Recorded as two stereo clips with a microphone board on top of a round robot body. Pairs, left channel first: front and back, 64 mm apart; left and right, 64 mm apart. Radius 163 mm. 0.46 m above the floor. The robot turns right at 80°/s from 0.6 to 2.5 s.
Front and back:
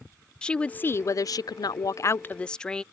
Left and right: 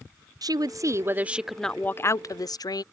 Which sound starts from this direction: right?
A woman speaking, at 0.4 s.